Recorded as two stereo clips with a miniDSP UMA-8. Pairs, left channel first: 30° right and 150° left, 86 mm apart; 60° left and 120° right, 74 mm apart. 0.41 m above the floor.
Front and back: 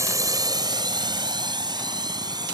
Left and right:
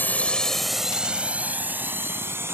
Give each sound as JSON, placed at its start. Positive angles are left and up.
{"t": 0.0, "sound": "a drone", "azimuth_deg": 115}